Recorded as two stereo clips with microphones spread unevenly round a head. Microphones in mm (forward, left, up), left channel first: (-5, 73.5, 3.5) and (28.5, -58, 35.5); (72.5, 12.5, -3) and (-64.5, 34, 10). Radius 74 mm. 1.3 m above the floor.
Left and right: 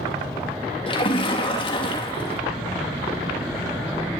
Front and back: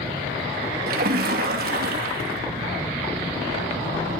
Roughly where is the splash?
Behind left.